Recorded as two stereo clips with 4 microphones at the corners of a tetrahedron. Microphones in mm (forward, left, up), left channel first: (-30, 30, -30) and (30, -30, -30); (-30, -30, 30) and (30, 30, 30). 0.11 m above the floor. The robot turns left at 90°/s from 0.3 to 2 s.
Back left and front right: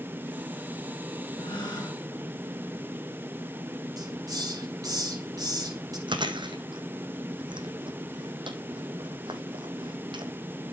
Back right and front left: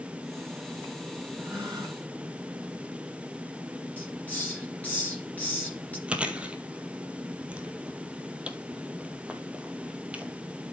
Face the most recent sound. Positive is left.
turn(degrees=-30)